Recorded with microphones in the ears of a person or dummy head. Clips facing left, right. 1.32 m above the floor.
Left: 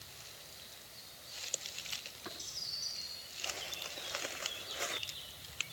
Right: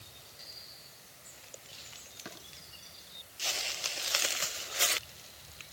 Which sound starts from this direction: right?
Tapping, at 2.2 s.